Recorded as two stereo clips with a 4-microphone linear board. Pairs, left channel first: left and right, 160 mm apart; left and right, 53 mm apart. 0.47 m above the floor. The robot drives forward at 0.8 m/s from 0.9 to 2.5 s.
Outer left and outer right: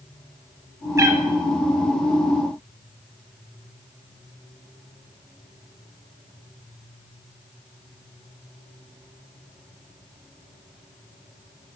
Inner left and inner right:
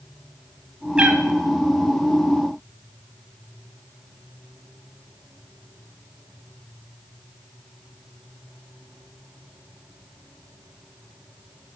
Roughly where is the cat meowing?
Centre.